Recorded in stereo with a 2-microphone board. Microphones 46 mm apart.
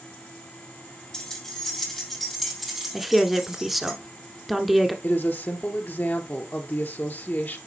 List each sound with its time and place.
1.1 s keys jangling: 15° left (ahead or behind), 3 m; by 3.9 s 15° right (ahead or behind), 3 m
2.9 s a woman speaking: 5° right (ahead or behind), 1.2 m
5.0 s a woman speaking: 50° left (ahead or behind), 1.8 m